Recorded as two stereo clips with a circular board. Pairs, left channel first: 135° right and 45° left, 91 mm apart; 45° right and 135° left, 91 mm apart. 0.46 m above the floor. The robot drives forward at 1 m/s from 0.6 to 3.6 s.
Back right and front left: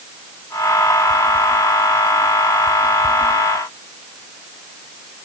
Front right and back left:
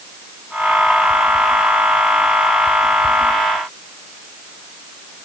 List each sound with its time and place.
Only background noise.